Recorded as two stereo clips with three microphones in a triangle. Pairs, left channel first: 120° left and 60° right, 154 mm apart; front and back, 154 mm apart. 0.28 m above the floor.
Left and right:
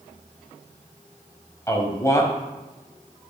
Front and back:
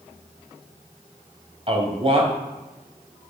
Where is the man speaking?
175° left, 1.8 m.